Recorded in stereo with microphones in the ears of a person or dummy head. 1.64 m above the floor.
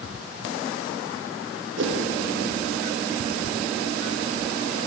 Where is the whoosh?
65° right (ahead or behind), 0.9 m.